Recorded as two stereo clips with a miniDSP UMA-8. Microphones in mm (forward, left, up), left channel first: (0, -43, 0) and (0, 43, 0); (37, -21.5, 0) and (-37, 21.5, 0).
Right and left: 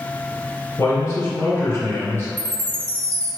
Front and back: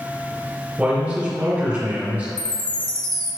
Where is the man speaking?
135° right, 2.0 m.